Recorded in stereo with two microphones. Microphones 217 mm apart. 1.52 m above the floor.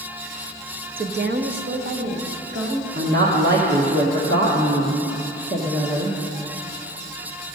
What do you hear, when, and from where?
1.0 s a woman speaking: 45° right (ahead or behind), 0.5 m; by 2.9 s 65° right (ahead or behind), 2 m
3.0 s a woman speaking: 55° right (ahead or behind), 1.1 m